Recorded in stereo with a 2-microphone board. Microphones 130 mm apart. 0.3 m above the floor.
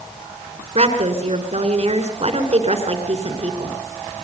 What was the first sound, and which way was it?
A woman speaking, 55° right (ahead or behind).